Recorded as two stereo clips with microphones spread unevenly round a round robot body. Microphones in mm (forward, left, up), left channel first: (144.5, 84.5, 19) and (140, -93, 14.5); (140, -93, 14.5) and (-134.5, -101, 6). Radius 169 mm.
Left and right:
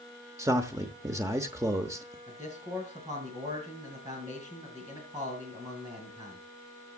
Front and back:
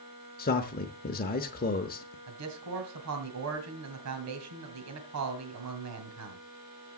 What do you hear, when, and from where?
0.4 s a man speaking: 30° right, 1.0 m
2.3 s a man speaking: 165° right, 2.5 m